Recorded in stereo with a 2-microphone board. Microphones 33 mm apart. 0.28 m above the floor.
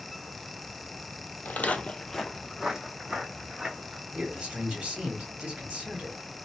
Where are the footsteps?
65° left (ahead or behind), 0.5 m; by 4.0 s 30° right (ahead or behind), 1.6 m.